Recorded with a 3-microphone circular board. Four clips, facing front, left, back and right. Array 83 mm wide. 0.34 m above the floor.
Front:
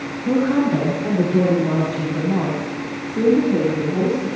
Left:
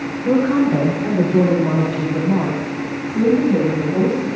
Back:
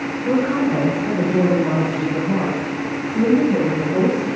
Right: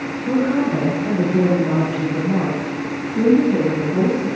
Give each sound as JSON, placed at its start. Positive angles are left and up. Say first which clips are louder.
{"t": 0.2, "sound": "a woman speaking", "louder": "left 3 dB, front 1 dB", "azimuth_deg": 115, "distance_m": 6.0}